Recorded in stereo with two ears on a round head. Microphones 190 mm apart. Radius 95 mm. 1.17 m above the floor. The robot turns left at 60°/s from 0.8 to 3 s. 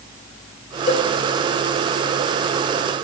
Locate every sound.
0.9 s a cowbell: 30° left (ahead or behind), 1.4 m; by 1.1 s 20° left (ahead or behind), 1.4 m